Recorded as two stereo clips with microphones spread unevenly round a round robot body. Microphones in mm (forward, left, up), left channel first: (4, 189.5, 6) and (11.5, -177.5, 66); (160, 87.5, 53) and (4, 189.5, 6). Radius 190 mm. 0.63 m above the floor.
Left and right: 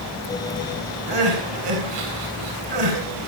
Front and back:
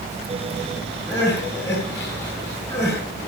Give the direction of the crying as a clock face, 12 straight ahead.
4 o'clock.